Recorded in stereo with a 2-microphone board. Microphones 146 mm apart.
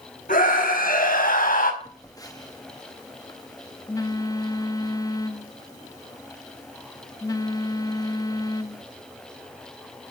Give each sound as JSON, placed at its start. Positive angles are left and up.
{"t": 0.3, "sound": "a scream", "side_deg": 80, "distance_m": 5.0}
{"t": 1.8, "sound": "a phone buzzing", "side_deg": 25, "distance_m": 1.2}